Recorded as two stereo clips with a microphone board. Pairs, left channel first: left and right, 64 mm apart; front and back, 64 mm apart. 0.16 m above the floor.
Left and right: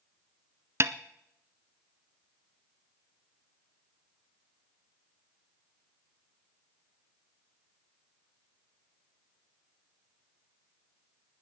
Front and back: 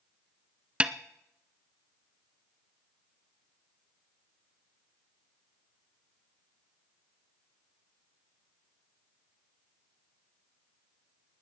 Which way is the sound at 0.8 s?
115° right.